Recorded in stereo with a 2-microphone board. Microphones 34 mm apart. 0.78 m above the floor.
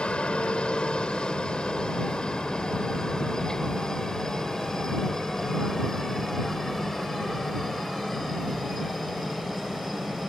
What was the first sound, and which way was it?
A helicopter, 30° left (ahead or behind).